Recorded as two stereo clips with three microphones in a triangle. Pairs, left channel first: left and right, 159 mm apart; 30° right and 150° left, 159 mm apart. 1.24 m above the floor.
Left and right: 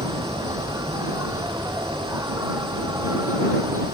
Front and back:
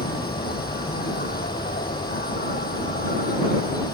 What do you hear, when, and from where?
0.0 s an insect: 20° right